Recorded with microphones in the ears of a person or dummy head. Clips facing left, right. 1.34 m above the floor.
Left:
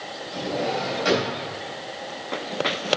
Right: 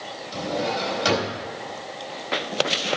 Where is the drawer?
55° right (ahead or behind), 4 m.